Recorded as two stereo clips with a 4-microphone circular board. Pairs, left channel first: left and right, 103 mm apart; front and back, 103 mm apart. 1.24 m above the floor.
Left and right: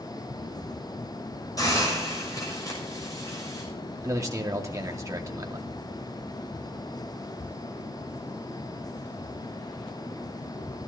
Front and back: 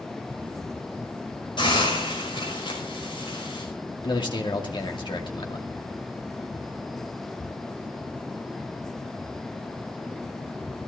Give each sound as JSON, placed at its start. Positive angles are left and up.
{"t": 1.6, "sound": "a hiss", "azimuth_deg": 35, "distance_m": 6.0}
{"t": 4.0, "sound": "a man speaking", "azimuth_deg": -35, "distance_m": 2.5}